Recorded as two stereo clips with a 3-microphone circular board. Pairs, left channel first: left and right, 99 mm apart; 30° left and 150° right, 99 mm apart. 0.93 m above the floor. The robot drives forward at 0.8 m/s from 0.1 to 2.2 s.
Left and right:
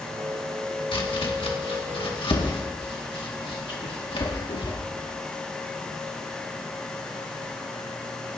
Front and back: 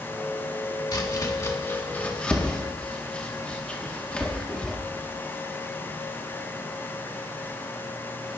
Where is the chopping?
70° left, 1.8 m; by 4.8 s 105° left, 1.8 m.